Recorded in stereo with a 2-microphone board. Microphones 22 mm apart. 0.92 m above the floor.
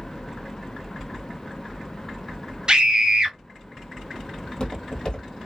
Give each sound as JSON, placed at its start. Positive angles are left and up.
{"t": 2.7, "sound": "a scream", "side_deg": -45, "distance_m": 0.8}
{"t": 4.4, "sound": "footsteps", "side_deg": 40, "distance_m": 1.4}